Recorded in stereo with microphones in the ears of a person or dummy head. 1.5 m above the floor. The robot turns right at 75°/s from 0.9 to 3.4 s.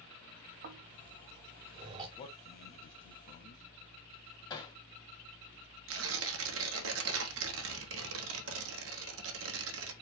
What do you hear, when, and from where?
0.6 s snoring: 40° right (ahead or behind), 0.7 m; by 2.1 s 20° right (ahead or behind), 0.7 m
2.2 s a man speaking: 30° left (ahead or behind), 0.7 m; by 3.6 s 50° left (ahead or behind), 0.7 m
4.5 s hammering: 25° left (ahead or behind), 0.7 m
5.9 s tearing paper: 70° right (ahead or behind), 1.0 m